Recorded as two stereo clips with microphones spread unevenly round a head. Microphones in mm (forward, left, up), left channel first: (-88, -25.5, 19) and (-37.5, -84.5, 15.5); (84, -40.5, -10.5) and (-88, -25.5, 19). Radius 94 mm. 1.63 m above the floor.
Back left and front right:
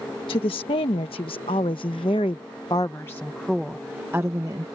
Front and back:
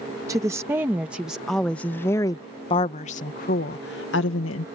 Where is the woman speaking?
100° left; by 4.7 s 20° left.